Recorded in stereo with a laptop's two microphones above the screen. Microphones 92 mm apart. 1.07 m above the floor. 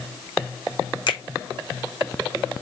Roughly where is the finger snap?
Left.